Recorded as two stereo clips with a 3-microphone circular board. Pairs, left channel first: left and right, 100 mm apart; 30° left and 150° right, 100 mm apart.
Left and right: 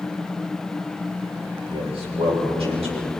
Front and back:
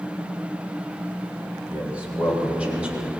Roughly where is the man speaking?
Right.